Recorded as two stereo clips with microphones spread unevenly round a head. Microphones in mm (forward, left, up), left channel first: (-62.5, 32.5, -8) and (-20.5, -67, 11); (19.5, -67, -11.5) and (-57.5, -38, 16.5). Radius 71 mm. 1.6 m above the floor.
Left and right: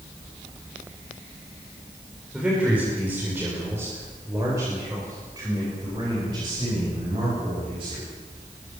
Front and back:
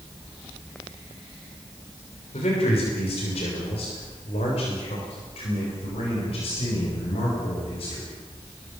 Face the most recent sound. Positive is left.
turn(degrees=-10)